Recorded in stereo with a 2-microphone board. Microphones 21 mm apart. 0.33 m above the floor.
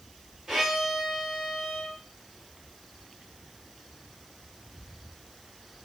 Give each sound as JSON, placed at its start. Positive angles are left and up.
{"t": 0.5, "sound": "a violin", "side_deg": -25, "distance_m": 1.7}